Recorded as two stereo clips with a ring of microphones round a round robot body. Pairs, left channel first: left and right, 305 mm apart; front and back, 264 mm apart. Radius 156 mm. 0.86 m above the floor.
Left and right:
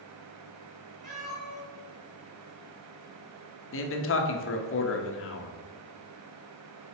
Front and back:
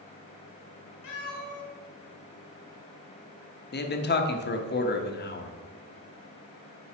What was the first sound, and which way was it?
A cat meowing, straight ahead.